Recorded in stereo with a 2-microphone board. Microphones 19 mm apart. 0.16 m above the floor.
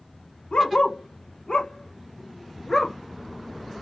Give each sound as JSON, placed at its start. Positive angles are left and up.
{"t": 0.5, "sound": "a dog barking", "side_deg": 65, "distance_m": 1.7}